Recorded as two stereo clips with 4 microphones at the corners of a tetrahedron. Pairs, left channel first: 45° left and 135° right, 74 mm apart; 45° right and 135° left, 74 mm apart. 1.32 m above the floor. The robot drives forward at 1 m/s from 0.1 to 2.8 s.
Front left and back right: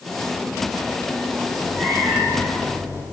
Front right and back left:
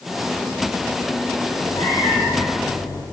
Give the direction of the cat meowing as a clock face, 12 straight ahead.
12 o'clock.